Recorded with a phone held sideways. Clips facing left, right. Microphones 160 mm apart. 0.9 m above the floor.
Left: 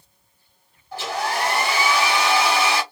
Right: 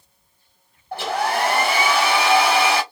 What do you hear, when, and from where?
0.9 s a hair dryer: 55° right (ahead or behind), 1.5 m